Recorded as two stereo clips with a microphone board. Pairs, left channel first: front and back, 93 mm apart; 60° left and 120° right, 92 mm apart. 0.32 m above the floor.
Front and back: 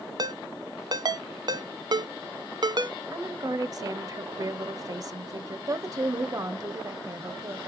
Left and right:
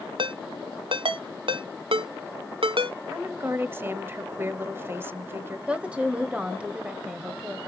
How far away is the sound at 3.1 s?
About 1.1 m.